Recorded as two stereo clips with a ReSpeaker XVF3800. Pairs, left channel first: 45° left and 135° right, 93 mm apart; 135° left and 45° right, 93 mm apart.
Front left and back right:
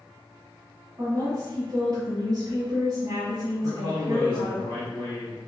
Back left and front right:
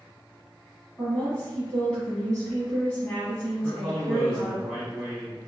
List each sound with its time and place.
1.0 s a woman speaking: 150° right, 1.3 m
3.6 s a man speaking: 125° right, 1.6 m